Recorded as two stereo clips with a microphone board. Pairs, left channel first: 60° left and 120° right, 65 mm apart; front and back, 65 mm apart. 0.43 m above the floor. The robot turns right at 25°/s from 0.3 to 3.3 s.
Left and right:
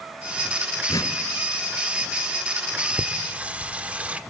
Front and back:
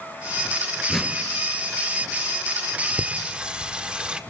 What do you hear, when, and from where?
0.9 s a whoosh: 90° left, 3 m; by 1.2 s 95° left, 3 m
3.0 s singing: 145° right, 1.3 m; by 4.2 s 140° right, 1.3 m